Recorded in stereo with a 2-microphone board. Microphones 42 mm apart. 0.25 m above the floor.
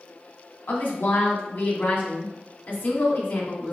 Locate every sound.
0.7 s a woman speaking: 50° left (ahead or behind), 1.5 m